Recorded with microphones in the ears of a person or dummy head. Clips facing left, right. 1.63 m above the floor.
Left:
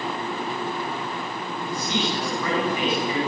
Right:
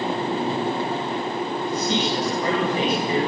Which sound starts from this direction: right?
A man speaking, at 1.7 s.